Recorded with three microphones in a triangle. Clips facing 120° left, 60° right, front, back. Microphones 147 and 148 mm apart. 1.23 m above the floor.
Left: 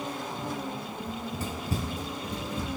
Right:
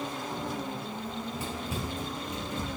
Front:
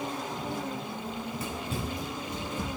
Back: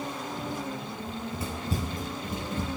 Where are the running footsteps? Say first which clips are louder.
Left 1 dB, back 1 dB; 110° left, 1.5 m; by 2.7 s 175° left, 2.5 m.